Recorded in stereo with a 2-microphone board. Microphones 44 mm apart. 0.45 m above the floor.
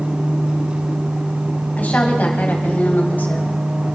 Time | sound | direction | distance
1.8 | a woman speaking | 40° left (ahead or behind) | 3.5 m